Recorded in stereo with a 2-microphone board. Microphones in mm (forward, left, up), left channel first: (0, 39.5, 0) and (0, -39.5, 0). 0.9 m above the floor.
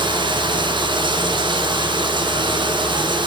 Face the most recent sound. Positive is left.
turn(degrees=-80)